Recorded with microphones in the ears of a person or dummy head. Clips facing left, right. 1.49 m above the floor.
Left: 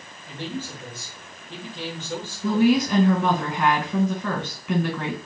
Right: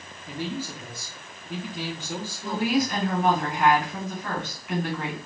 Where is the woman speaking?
65° left (ahead or behind), 2 m.